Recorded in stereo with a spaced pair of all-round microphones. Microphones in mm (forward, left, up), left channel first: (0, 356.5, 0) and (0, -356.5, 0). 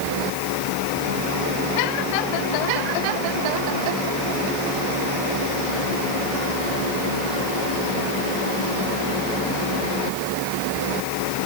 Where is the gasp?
I don't hear a gasp.